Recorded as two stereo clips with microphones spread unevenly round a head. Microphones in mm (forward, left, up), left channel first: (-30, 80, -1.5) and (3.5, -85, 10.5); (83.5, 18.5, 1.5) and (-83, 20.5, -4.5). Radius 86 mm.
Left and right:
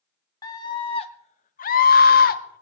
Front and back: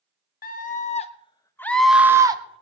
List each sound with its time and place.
0.4 s a scream: 35° left, 1.7 m; by 2.6 s 125° left, 1.3 m